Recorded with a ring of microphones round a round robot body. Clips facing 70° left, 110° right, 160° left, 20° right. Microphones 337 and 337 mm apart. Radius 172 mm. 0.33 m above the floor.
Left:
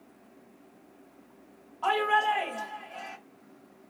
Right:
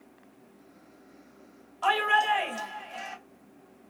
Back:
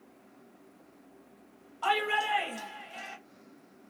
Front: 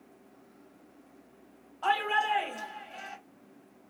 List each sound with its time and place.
1.8 s a shout: 140° right, 1.6 m